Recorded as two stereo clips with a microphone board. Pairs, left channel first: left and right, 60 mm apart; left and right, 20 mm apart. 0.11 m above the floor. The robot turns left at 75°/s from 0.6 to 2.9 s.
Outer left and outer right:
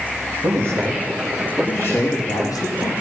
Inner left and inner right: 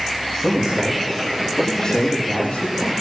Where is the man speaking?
125° right, 5 m; by 3.0 s 65° left, 5 m.